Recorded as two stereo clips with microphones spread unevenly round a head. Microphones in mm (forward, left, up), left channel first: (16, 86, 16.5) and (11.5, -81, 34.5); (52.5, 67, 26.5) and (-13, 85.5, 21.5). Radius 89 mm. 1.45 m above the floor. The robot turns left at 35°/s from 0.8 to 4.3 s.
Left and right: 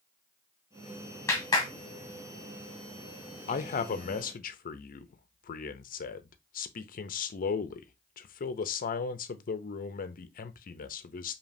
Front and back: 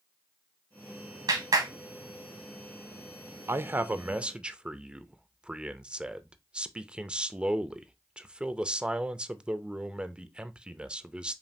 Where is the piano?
No piano in this recording.